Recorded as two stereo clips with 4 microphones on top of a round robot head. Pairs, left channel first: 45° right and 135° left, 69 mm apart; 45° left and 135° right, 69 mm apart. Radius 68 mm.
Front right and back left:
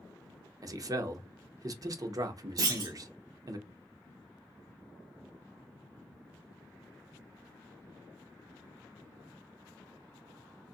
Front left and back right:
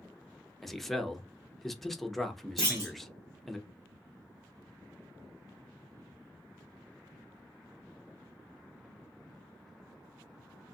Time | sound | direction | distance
0.6 | a man speaking | 130° left | 0.7 m
2.6 | a clunk | 175° left | 1.2 m